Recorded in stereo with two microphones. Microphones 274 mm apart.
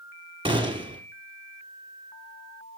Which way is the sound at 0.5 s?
15° right (ahead or behind).